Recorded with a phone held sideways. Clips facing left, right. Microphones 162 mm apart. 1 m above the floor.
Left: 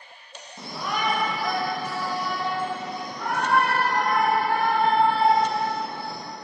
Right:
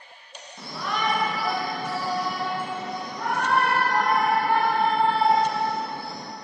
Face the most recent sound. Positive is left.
turn(degrees=-50)  # may be behind; listen again after turning